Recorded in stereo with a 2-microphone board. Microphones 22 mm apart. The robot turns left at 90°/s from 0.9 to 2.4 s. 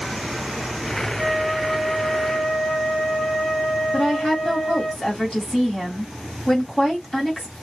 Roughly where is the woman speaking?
Left.